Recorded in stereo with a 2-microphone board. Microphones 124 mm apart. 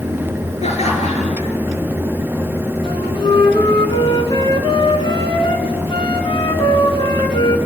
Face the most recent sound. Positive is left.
turn(degrees=40)  # may be behind; listen again after turning